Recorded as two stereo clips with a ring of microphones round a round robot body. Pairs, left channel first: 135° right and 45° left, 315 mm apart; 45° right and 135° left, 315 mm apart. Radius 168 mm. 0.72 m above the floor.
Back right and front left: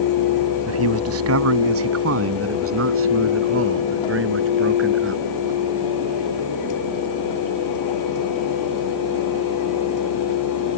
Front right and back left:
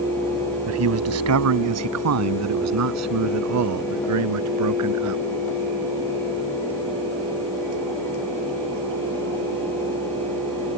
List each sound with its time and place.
0.7 s a man speaking: 90° left; by 5.2 s 95° left